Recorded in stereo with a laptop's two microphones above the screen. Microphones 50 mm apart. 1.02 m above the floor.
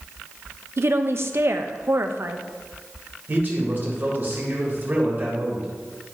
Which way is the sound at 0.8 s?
55° right (ahead or behind).